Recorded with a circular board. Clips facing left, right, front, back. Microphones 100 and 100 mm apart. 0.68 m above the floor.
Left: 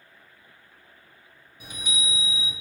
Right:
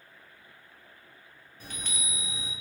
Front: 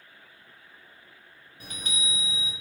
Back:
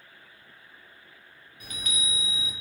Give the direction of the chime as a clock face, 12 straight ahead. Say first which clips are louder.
Left 6 dB, even; 11 o'clock.